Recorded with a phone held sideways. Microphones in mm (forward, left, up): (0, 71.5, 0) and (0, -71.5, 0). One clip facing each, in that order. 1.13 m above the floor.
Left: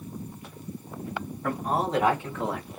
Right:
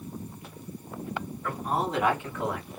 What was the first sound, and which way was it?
A man speaking, 45° left (ahead or behind).